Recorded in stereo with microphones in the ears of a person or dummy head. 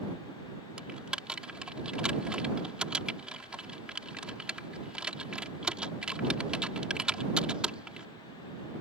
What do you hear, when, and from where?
0.8 s typing on a keyboard: centre (ahead or behind)